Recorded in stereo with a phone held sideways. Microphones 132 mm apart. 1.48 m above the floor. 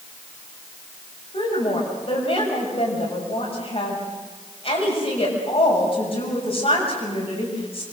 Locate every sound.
1.3 s a woman speaking: 45° left (ahead or behind), 7 m